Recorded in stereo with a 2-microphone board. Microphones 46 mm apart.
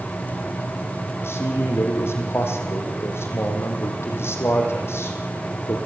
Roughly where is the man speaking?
Left.